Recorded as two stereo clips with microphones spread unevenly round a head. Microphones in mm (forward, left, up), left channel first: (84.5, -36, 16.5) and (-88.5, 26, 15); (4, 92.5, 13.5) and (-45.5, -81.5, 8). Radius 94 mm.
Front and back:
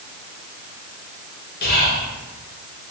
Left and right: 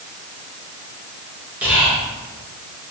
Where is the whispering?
30° right, 1.0 m.